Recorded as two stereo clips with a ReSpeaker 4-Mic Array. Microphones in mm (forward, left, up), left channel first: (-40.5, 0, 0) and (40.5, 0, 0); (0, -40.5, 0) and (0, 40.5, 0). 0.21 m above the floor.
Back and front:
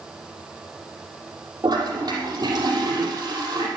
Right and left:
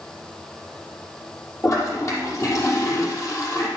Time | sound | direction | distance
1.6 | a toilet flushing | 40° right | 5.5 m